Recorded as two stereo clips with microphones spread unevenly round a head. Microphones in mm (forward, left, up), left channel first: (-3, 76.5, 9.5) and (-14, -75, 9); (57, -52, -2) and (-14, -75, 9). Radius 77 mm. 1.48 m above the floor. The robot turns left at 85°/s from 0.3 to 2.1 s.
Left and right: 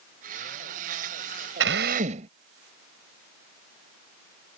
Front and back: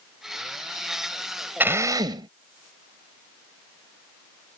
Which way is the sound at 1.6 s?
100° right.